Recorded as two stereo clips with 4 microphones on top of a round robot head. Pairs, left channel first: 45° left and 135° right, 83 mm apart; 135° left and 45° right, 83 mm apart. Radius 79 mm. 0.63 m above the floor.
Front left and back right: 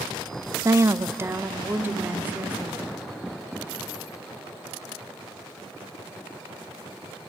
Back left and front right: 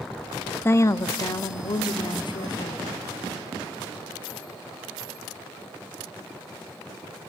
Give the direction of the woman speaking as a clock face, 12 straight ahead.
6 o'clock.